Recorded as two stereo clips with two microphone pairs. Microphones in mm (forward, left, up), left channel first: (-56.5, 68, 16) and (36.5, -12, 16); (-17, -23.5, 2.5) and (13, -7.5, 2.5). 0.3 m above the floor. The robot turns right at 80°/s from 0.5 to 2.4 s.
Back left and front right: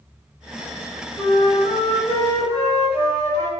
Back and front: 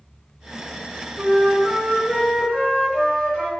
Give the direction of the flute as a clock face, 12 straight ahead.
9 o'clock.